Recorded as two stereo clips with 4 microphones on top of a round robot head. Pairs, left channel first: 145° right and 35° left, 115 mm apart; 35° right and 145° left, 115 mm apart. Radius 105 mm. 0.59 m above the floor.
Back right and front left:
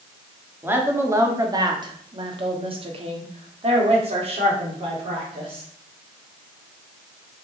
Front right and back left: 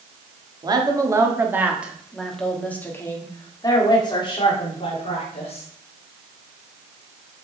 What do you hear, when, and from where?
0.6 s a woman speaking: 100° left, 1.9 m; by 5.6 s straight ahead, 3 m